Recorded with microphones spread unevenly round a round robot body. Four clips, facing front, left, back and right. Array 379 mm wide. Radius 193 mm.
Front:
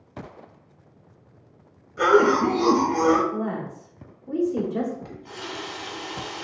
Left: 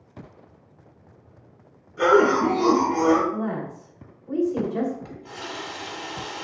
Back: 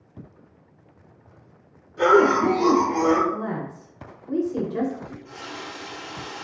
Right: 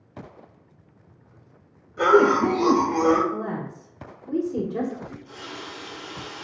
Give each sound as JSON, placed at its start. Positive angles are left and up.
{"t": 2.0, "sound": "a cough", "azimuth_deg": -70, "distance_m": 1.2}
{"t": 3.3, "sound": "a woman speaking", "azimuth_deg": -95, "distance_m": 0.9}
{"t": 5.0, "sound": "a running tap", "azimuth_deg": 65, "distance_m": 1.0}